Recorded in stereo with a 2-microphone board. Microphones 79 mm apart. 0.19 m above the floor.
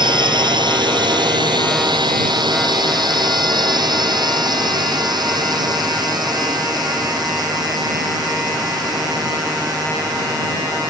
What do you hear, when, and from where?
0.0 s a drone: 70° right (ahead or behind); by 10.9 s 55° right (ahead or behind)